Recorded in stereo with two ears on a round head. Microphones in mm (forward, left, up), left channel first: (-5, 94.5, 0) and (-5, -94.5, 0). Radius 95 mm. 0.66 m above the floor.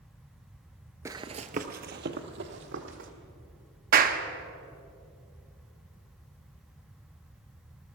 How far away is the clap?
About 0.9 m.